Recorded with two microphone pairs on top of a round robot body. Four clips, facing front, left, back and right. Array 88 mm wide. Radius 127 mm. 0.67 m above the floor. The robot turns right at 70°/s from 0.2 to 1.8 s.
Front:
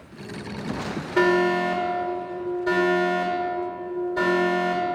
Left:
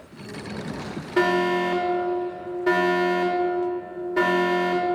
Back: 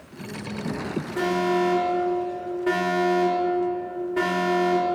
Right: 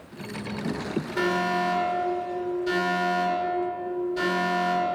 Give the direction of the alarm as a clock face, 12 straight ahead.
10 o'clock.